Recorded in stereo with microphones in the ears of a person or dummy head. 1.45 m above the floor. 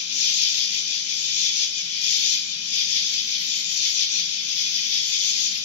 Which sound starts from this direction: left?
An insect, at 0.0 s.